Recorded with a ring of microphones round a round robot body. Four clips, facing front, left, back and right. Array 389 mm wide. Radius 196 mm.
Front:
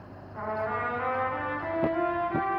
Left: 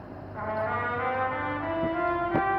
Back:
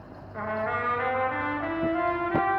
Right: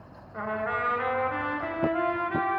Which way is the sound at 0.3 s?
140° right.